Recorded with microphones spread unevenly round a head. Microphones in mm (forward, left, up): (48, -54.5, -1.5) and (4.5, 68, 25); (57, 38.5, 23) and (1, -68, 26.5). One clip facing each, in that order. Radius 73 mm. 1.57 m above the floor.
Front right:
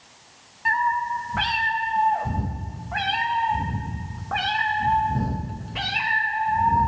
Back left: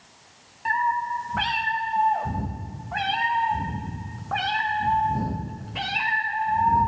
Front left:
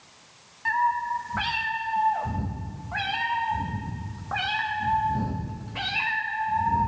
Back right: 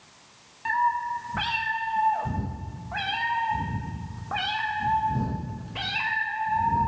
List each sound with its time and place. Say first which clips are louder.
0.7 s a cat meowing: front right 1 dB, even; 175° left, 0.9 m